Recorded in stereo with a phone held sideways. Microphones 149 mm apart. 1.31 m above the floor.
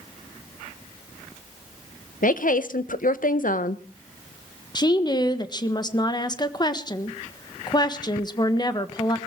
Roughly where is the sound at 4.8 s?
Left.